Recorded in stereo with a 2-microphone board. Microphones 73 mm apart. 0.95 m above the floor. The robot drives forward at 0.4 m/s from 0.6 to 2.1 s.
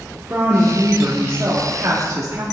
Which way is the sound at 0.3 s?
30° right (ahead or behind).